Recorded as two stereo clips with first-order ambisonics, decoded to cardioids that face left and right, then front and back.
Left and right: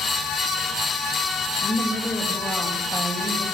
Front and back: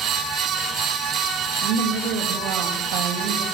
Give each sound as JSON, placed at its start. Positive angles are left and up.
{"t": 1.6, "sound": "a woman speaking", "azimuth_deg": 175, "distance_m": 2.0}